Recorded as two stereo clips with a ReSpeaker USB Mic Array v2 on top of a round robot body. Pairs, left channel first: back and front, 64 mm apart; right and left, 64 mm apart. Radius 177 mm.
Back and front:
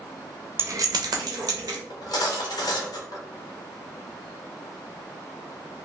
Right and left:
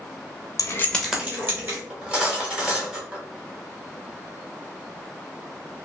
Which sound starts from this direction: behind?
Cutlery clinking, at 1.9 s.